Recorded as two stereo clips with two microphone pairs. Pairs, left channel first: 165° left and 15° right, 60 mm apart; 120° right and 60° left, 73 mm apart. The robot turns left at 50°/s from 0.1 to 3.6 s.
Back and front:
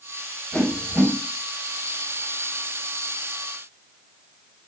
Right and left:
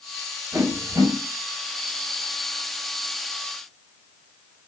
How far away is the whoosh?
About 2.5 m.